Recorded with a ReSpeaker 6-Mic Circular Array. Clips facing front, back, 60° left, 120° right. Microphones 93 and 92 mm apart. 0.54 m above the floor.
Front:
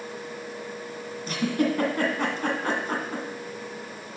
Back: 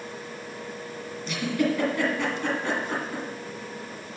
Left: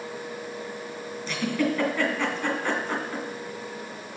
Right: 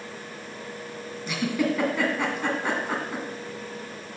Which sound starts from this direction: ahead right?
A giggle, at 1.3 s.